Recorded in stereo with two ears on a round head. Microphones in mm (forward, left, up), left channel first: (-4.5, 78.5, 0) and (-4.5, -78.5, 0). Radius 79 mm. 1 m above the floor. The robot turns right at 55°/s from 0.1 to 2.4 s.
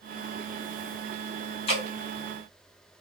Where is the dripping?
35° left (ahead or behind), 1.3 m; by 1.9 s 30° left (ahead or behind), 1.3 m.